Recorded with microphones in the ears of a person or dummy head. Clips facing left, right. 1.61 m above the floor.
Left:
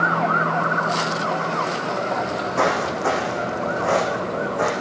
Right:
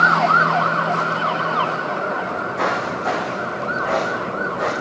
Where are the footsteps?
60° left (ahead or behind), 5.5 m; by 4.7 s 40° left (ahead or behind), 5.5 m.